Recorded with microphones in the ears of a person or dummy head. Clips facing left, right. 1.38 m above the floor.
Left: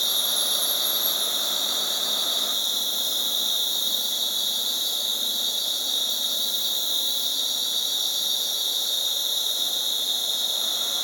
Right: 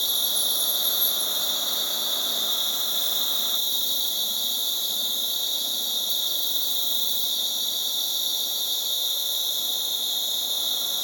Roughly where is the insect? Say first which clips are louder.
Left 3 dB; centre.